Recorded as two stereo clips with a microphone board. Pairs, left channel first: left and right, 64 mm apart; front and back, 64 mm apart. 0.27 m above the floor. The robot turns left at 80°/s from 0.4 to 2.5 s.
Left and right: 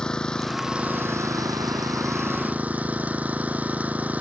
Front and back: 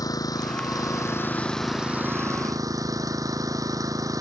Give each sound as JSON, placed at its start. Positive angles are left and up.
{"t": 0.0, "sound": "an engine running", "azimuth_deg": 10}